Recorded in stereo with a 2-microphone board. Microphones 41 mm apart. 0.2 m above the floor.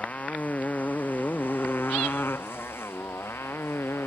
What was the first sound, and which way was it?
A motorcycle, 35° left (ahead or behind).